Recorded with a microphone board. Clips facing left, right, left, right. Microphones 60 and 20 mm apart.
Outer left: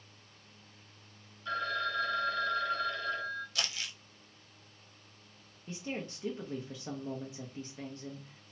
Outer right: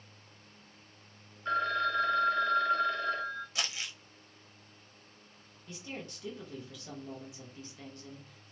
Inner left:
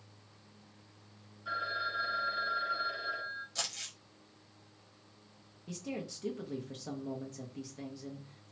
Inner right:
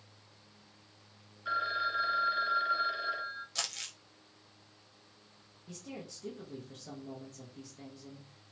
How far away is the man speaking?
About 0.5 m.